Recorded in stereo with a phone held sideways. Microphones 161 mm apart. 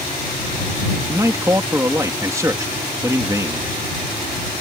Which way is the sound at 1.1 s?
20° right (ahead or behind).